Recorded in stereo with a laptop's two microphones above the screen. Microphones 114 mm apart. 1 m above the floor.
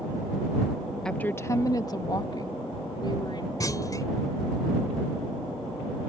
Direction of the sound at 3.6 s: 30° left (ahead or behind).